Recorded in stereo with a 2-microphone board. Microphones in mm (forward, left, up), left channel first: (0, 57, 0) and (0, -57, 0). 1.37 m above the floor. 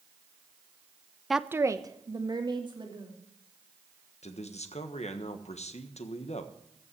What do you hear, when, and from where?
1.3 s a woman speaking: centre (ahead or behind), 0.5 m; by 3.1 s 45° right (ahead or behind), 3 m
4.2 s a man speaking: 75° left (ahead or behind), 1.3 m